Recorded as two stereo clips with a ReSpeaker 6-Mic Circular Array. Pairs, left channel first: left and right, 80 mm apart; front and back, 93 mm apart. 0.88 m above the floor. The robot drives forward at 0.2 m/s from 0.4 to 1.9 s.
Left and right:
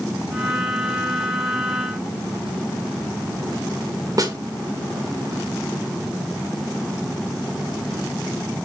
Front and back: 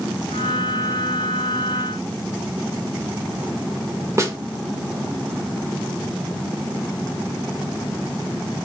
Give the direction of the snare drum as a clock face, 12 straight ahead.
4 o'clock.